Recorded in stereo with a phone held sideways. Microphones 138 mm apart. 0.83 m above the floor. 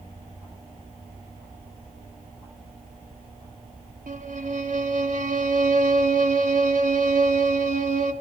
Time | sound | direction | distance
4.1 | a violin | 65° right (ahead or behind) | 2 m